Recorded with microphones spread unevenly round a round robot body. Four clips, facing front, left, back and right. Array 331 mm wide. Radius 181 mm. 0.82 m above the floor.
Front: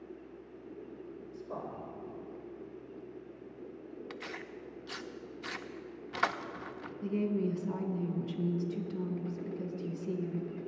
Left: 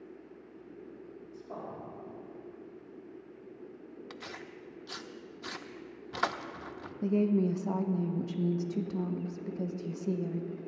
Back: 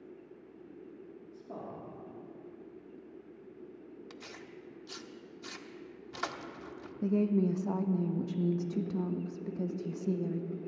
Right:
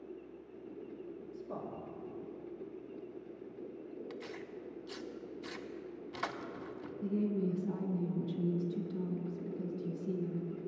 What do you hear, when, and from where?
1.3 s a man speaking: 120° right, 2 m
4.1 s tearing paper: 60° left, 0.6 m
7.0 s a woman speaking: 120° left, 0.8 m